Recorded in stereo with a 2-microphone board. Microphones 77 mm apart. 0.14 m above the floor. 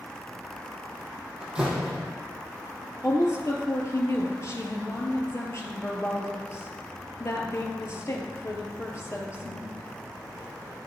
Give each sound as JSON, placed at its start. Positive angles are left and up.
{"t": 1.4, "sound": "a door slam", "side_deg": -10, "distance_m": 3.0}
{"t": 3.0, "sound": "a woman speaking", "side_deg": 40, "distance_m": 2.5}